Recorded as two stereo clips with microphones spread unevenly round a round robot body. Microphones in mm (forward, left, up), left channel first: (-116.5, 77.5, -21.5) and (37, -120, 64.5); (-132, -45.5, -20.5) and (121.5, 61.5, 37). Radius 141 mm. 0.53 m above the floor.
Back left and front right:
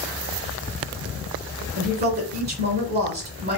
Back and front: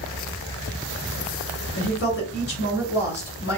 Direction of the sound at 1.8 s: 110° right.